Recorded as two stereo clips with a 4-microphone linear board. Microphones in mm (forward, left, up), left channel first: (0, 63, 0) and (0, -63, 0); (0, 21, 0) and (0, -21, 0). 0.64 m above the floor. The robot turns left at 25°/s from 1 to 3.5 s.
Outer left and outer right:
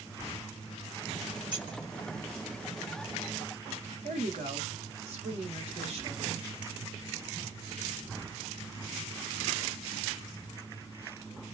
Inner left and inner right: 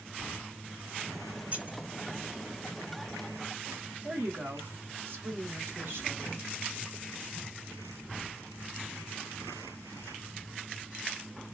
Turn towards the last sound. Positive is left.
turn(degrees=-55)  # may be behind; listen again after turning